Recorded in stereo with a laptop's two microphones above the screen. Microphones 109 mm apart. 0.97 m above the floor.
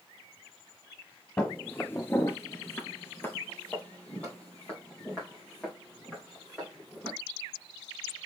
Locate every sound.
1.4 s footsteps: 15° left (ahead or behind), 1.5 m; by 7.1 s 5° left (ahead or behind), 5 m